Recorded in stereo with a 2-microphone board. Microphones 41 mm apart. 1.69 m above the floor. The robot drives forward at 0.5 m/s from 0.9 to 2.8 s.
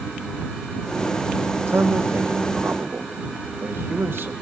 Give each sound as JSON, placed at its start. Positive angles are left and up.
{"t": 1.7, "sound": "a man speaking", "side_deg": -85, "distance_m": 1.8}